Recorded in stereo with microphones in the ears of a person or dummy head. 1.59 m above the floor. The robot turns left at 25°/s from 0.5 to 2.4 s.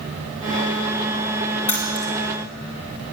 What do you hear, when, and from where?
1.7 s keys jangling: 10° left (ahead or behind), 2.0 m; by 2.1 s centre (ahead or behind), 2.0 m